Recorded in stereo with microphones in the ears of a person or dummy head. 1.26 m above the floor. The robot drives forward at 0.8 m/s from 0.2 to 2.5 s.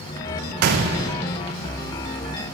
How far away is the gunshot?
About 0.6 m.